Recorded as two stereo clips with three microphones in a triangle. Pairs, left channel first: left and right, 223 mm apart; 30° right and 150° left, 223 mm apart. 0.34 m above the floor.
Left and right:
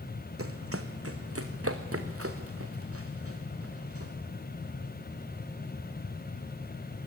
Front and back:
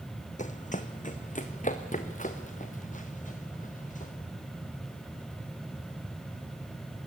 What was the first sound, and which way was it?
Running footsteps, 85° right.